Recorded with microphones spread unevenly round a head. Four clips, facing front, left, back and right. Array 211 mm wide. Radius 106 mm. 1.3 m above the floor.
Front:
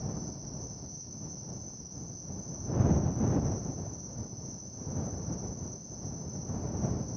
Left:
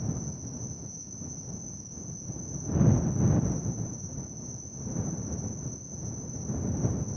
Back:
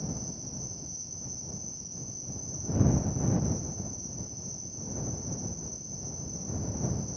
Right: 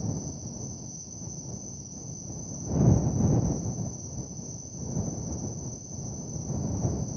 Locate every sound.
0.0 s an insect: 160° right